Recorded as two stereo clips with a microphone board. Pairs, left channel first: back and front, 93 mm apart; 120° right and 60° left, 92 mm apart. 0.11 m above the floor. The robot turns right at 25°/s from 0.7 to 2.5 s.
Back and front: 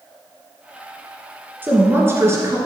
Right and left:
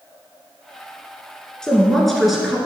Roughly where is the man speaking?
Ahead right.